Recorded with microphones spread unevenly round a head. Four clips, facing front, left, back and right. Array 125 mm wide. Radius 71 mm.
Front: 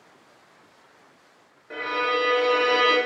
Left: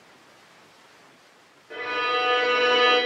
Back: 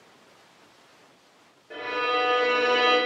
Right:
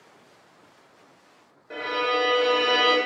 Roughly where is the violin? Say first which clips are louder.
Right 1 dB, front 2 dB; behind right.